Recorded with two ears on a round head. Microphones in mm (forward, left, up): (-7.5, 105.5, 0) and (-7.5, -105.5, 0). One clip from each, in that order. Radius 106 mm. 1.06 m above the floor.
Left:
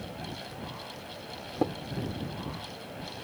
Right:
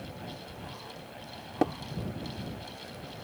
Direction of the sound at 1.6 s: 65° right (ahead or behind).